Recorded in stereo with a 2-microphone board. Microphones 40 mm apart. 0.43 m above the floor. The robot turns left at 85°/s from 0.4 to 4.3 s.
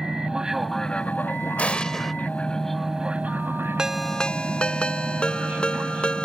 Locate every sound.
0.0 s an aircraft: 155° right; by 6.2 s 130° right
1.6 s an explosion: 50° left; by 2.1 s straight ahead
3.8 s a ringtone: 160° right; by 6.2 s 155° left